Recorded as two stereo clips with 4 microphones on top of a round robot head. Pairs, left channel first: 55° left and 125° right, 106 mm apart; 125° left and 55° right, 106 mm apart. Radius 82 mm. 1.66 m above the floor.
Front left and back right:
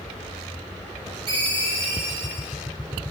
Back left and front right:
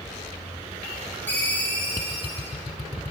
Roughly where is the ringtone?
Behind.